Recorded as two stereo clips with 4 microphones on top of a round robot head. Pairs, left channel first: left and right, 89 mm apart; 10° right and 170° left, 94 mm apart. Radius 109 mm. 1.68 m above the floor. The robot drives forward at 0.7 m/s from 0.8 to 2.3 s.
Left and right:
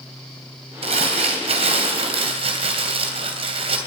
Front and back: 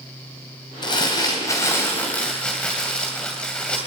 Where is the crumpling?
65° right, 2.5 m; by 3.8 s 90° right, 2.5 m.